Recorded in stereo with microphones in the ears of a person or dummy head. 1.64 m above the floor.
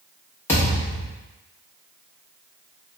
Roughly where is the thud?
Centre.